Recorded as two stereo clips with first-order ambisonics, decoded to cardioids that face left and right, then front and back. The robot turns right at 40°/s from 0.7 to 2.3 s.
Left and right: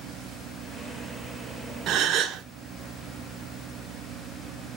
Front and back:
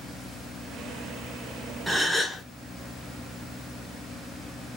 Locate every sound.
1.9 s a gasp: 100° right, 0.6 m; by 2.4 s 80° right, 0.6 m